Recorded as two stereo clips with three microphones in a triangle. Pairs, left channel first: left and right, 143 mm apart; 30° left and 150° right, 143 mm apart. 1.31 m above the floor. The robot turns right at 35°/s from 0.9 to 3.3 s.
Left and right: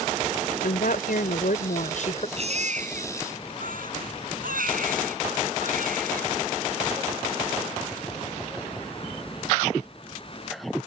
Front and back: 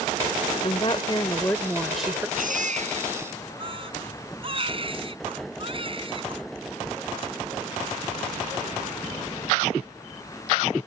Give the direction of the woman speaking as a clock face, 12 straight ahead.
9 o'clock.